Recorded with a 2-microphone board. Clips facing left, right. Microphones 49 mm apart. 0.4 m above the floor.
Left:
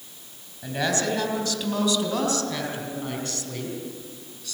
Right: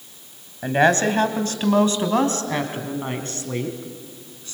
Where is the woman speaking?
45° right (ahead or behind), 3 m; by 4.5 s 30° right (ahead or behind), 5 m.